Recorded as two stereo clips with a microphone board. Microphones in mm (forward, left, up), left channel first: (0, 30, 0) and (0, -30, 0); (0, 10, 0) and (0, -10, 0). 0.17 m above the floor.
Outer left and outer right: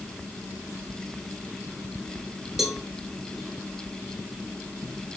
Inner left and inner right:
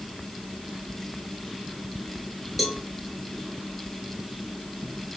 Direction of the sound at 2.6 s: 5° right (ahead or behind).